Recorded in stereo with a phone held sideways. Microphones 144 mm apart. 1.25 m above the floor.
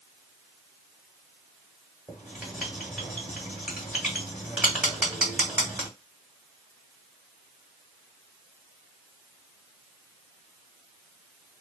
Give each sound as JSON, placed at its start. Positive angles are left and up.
{"t": 2.1, "sound": "writing", "side_deg": -5, "distance_m": 1.7}